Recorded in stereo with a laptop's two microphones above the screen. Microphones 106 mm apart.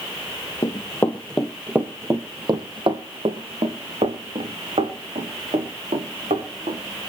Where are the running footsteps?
35° left (ahead or behind), 1.9 m; by 6.8 s 80° right, 6.5 m.